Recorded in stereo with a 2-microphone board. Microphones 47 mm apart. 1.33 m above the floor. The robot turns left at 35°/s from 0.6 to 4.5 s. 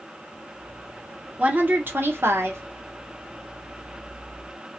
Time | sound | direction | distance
1.4 | a woman speaking | 35° right | 0.8 m